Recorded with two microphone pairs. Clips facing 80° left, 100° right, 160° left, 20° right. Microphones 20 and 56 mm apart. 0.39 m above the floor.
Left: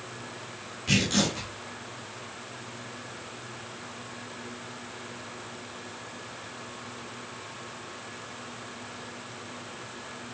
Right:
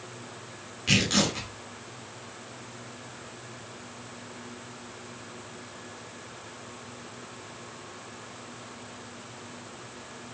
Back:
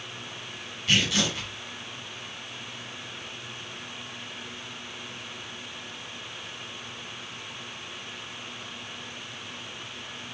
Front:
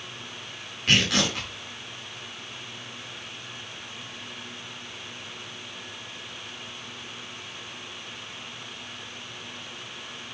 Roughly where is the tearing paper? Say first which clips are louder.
Right 1 dB, front 2 dB; ahead right.